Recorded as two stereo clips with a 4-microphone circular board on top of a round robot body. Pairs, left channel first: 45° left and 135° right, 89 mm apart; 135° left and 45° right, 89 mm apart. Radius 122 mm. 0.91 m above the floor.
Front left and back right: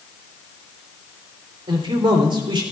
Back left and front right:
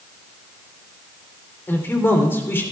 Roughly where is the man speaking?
Behind.